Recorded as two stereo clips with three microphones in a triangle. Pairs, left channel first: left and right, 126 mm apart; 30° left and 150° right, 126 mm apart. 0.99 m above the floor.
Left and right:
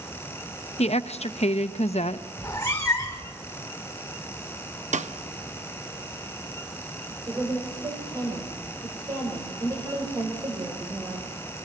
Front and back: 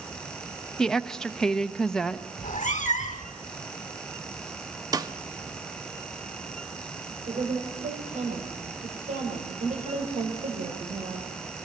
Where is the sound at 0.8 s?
115° left, 0.8 m.